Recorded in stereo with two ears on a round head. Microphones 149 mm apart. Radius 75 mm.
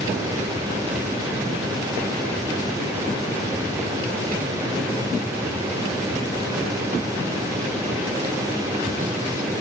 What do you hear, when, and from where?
Only background noise.